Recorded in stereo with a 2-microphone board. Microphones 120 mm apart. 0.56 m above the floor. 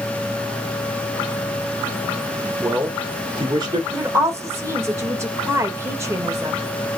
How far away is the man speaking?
About 1.9 m.